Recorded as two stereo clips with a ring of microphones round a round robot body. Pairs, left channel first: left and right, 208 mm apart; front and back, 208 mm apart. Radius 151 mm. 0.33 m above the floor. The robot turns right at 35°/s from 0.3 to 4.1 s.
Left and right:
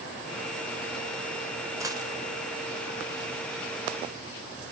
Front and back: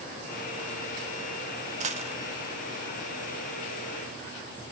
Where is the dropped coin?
155° right, 0.6 m; by 2.2 s 140° right, 0.6 m.